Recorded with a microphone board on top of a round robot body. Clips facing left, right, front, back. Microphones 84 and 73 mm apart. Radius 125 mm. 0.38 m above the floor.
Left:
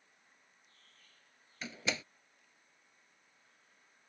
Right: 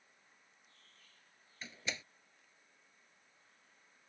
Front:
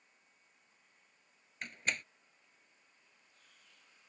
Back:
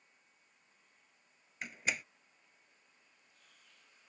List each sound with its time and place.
1.6 s a door slam: 95° left